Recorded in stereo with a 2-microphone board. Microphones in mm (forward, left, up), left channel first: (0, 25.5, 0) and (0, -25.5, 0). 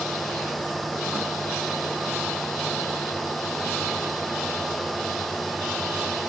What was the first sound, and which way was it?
Only background noise.